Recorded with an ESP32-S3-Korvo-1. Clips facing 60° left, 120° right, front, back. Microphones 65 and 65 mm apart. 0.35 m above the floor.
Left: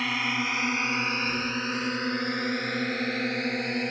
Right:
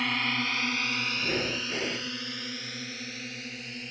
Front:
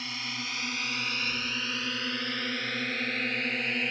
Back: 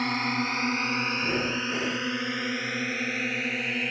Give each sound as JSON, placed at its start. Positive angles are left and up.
{"t": 0.0, "sound": "a drone", "azimuth_deg": 150}
{"t": 1.2, "sound": "breathing", "azimuth_deg": -160}